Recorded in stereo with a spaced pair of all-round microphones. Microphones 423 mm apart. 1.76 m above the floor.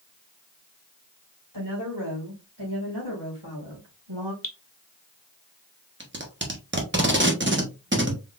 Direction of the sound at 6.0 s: 25° right (ahead or behind).